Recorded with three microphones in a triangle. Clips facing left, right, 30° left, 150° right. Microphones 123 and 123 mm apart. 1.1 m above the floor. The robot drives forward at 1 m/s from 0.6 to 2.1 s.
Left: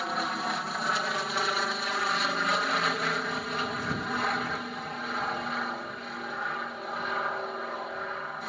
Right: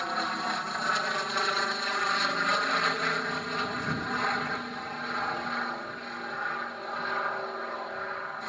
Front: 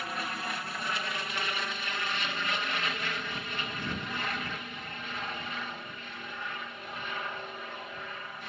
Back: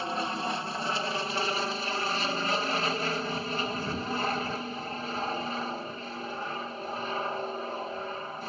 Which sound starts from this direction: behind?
An aircraft, at 0.0 s.